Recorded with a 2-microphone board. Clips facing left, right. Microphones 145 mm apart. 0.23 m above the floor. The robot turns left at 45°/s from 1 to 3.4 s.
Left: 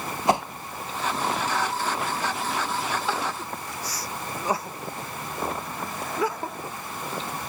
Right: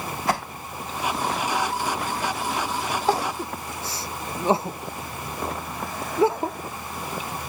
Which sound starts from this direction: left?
A whoosh, at 0.3 s.